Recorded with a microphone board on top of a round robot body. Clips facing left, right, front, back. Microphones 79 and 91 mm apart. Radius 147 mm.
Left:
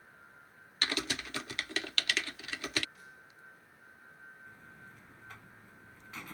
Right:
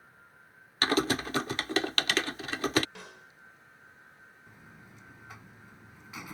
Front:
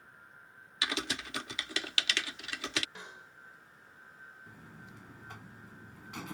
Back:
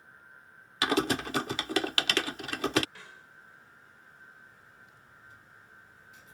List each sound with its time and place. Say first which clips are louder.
0.8 s typing on a keyboard: right 9 dB, back 10 dB; 135° right
3.0 s a snare drum: right 6 dB, front 2 dB; 70° right
4.5 s a buzzer: even, front 4 dB; 10° right